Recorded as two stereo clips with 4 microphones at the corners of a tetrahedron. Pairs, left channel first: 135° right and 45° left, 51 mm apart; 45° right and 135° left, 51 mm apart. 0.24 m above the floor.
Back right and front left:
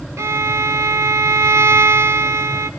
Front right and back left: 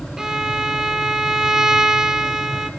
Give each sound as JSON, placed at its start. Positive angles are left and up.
{"t": 0.2, "sound": "a violin", "azimuth_deg": 55, "distance_m": 0.5}